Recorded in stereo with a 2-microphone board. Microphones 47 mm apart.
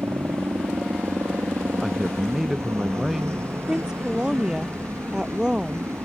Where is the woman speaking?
15° right (ahead or behind).